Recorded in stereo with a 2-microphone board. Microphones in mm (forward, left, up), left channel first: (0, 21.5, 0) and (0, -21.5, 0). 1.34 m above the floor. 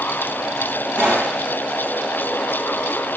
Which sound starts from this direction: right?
A pop, at 0.9 s.